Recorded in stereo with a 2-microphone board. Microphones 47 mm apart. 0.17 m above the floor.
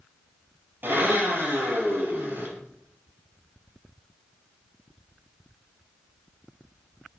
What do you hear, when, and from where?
0.8 s a blender: 50° right (ahead or behind), 5 m